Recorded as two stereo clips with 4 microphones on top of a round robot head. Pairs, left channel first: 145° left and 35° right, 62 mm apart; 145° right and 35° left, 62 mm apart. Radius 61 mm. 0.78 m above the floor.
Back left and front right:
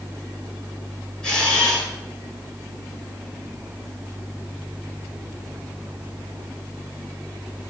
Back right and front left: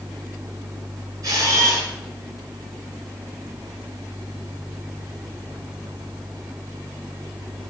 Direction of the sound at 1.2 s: 70° left.